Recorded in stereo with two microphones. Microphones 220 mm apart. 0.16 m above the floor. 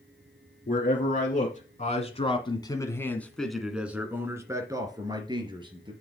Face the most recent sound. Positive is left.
turn(degrees=-25)  # may be behind; listen again after turning